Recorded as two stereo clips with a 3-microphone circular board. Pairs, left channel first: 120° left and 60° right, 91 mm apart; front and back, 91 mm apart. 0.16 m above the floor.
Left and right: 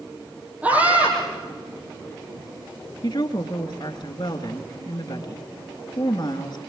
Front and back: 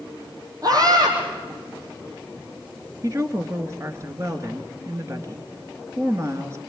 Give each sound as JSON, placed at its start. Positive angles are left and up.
{"t": 0.6, "sound": "a scream", "azimuth_deg": -135, "distance_m": 5.5}
{"t": 3.0, "sound": "a woman speaking", "azimuth_deg": 130, "distance_m": 2.0}